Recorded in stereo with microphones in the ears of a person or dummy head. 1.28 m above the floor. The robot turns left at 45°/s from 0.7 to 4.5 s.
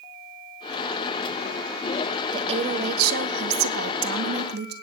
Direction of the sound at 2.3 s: 30° right.